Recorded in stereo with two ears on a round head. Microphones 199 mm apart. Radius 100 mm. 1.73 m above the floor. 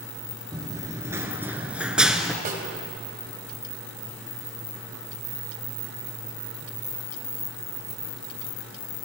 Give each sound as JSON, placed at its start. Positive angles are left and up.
{"t": 0.5, "sound": "running footsteps", "side_deg": -15, "distance_m": 1.9}
{"t": 2.5, "sound": "a snare drum", "side_deg": -45, "distance_m": 3.0}